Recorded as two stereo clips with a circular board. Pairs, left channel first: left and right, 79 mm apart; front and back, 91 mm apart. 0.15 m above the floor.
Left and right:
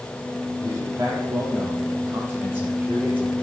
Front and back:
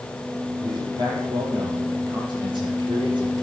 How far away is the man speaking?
About 6 m.